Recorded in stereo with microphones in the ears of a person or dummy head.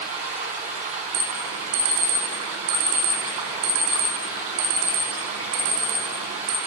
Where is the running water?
35° right (ahead or behind), 7 m.